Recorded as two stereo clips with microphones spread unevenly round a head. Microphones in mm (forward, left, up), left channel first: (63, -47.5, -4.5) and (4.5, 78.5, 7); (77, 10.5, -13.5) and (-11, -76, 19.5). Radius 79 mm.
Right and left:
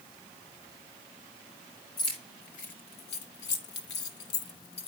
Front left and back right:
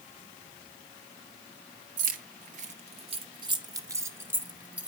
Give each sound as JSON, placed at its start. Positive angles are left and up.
{"t": 2.0, "sound": "keys jangling", "azimuth_deg": -130, "distance_m": 1.0}